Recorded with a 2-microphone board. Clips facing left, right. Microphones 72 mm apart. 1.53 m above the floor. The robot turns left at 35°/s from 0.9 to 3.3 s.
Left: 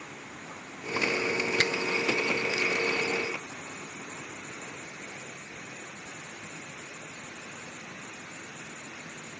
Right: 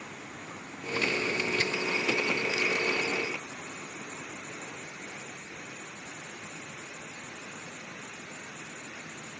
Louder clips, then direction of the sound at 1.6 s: Left 3 dB; 70° left (ahead or behind).